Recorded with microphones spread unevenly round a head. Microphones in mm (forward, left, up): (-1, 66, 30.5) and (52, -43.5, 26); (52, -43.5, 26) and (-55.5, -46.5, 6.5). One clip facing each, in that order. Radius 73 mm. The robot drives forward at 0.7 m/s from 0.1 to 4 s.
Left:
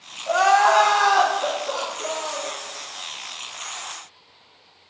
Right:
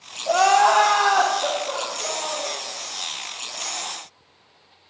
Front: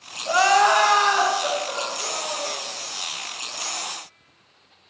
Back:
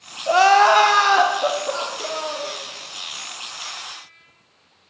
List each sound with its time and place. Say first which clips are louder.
0.3 s crying: even, back 4 dB; 130° right, 0.7 m; by 2.5 s 165° right, 2 m